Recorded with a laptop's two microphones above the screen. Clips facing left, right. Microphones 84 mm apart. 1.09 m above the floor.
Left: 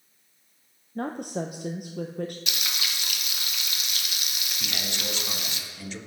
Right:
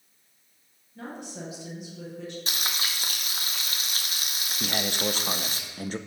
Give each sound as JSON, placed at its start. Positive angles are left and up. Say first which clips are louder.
{"t": 0.9, "sound": "a woman speaking", "louder": "left 8 dB", "side_deg": 55, "distance_m": 0.9}
{"t": 2.5, "sound": "frying", "louder": "right 1 dB", "side_deg": -40, "distance_m": 1.0}
{"t": 4.6, "sound": "a man speaking", "louder": "right 7 dB", "side_deg": -45, "distance_m": 0.8}